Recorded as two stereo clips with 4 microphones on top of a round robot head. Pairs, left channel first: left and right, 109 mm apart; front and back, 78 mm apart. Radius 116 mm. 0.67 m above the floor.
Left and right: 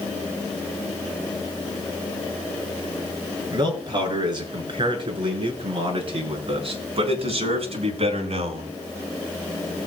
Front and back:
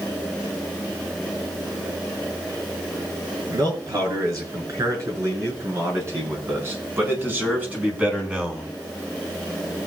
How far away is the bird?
No bird in this recording.